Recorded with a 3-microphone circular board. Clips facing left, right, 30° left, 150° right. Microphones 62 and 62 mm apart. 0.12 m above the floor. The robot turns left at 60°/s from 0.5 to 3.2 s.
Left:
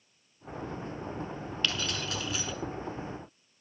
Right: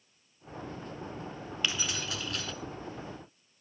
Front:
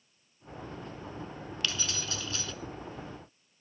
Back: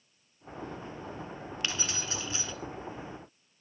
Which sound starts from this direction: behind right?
Keys jangling, at 1.6 s.